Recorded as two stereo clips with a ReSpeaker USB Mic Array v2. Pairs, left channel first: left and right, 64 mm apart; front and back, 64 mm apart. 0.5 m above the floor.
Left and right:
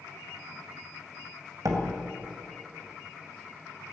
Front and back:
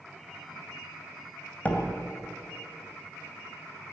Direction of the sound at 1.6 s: 65° right.